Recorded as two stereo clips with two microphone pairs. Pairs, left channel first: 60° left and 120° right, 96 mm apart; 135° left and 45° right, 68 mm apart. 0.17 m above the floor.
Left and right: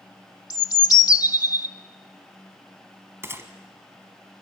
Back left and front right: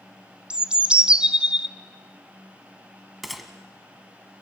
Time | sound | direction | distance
0.5 | a bird | 30° left | 0.5 m
3.2 | a gunshot | 135° right | 1.3 m